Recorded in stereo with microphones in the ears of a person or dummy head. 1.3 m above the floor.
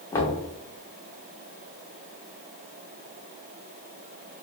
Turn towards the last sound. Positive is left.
turn(degrees=15)  # may be behind; listen again after turning